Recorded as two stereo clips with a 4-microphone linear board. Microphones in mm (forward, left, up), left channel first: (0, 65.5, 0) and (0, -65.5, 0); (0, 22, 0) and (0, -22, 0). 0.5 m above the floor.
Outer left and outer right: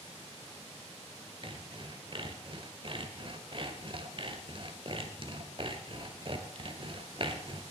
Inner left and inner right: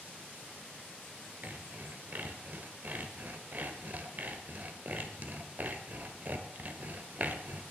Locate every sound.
1.4 s sawing: 45° right (ahead or behind), 1.4 m